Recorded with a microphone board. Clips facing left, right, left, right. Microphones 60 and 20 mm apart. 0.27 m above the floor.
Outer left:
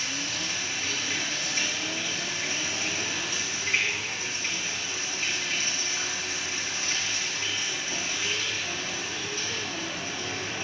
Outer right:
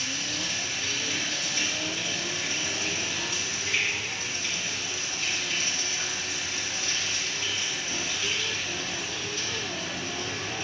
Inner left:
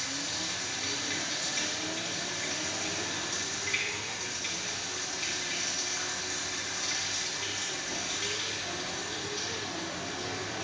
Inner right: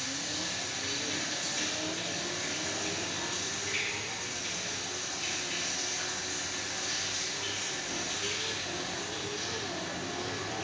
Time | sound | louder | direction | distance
0.0 | running water | even, inner left 1 dB | 35° left (ahead or behind) | 1.6 m